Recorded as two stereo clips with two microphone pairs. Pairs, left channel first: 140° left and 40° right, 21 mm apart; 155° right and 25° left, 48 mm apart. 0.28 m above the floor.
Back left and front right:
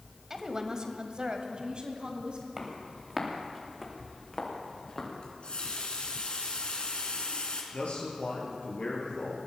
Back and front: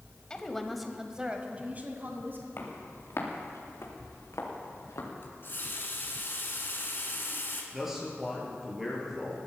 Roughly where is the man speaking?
Left.